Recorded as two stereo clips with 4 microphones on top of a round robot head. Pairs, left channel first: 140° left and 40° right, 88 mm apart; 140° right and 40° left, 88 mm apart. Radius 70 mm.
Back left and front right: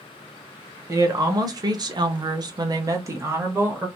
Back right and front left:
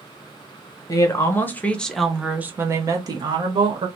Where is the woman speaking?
90° right, 1.1 m; by 3.9 s 25° left, 1.2 m.